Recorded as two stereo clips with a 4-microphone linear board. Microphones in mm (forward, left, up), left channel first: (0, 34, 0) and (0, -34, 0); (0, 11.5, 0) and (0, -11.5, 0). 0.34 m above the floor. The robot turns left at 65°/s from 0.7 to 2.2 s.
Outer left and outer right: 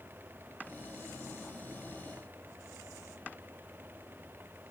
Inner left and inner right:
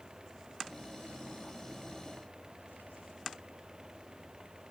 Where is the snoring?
No snoring in this recording.